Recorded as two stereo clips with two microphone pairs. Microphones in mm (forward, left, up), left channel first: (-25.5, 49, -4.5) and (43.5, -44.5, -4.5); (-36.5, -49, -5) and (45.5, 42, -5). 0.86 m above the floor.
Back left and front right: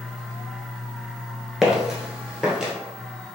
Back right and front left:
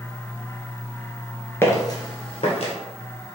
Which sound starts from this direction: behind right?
Footsteps, at 1.6 s.